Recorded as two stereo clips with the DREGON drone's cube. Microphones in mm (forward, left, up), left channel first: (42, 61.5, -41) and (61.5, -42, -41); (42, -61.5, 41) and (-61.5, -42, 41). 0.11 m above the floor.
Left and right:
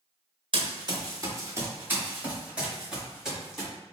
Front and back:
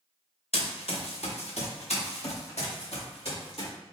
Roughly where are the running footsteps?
Ahead right.